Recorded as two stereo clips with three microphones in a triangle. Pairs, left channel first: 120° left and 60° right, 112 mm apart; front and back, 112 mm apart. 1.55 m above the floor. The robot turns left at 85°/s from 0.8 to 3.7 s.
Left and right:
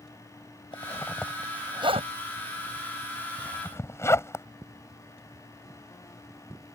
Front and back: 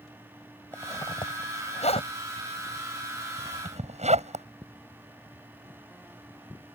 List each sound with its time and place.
0.7 s a zipper: 75° left; by 4.5 s 175° right